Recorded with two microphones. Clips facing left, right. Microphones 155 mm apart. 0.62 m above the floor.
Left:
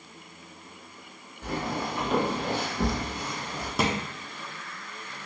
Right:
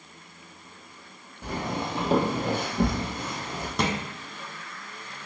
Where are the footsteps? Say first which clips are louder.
Even; 10° right (ahead or behind), 1.3 m; by 3.7 s 45° right (ahead or behind), 1.6 m.